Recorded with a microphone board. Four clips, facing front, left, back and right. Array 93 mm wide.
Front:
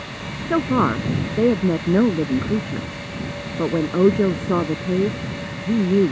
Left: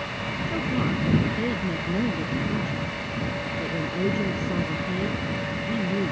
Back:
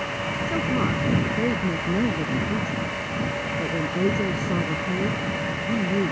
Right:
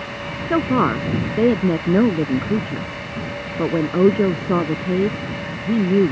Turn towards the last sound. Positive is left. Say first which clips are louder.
# right 10 dB, front 8 dB
turn(degrees=-55)